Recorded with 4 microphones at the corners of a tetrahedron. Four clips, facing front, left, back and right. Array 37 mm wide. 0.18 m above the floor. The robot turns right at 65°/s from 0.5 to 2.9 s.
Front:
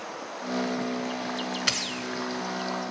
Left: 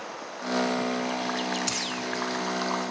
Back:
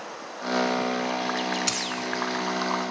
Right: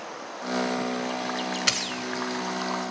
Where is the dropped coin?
65° right, 1.0 m; by 1.9 s 45° right, 1.0 m.